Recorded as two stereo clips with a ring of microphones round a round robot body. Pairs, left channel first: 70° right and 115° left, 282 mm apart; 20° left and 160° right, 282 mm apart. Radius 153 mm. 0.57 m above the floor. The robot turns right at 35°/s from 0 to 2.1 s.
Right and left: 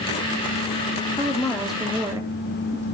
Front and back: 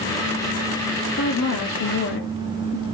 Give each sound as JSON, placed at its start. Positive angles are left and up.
{"t": 1.2, "sound": "a woman speaking", "azimuth_deg": 5, "distance_m": 1.4}